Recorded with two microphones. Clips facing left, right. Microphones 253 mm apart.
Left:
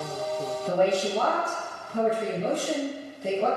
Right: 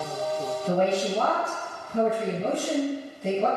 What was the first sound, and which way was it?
A woman speaking, 30° right (ahead or behind).